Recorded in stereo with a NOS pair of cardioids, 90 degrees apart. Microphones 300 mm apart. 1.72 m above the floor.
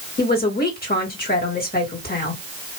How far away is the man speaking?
About 2 m.